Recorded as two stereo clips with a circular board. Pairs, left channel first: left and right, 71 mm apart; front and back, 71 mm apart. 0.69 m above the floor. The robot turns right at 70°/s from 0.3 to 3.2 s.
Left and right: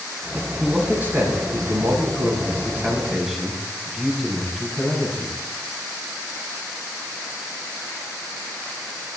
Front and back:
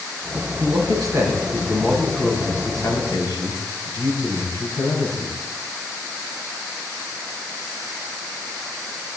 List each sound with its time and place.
0.6 s a man speaking: straight behind, 5.5 m; by 5.4 s straight ahead, 5.5 m